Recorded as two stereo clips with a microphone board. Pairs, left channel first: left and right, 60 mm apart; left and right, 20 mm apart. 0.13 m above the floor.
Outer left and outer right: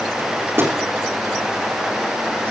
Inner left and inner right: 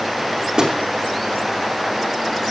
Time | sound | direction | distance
0.2 | a microwave | 40° right (ahead or behind) | 5 m